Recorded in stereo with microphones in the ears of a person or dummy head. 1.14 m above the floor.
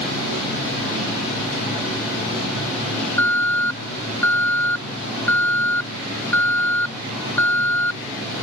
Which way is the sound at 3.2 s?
15° left (ahead or behind).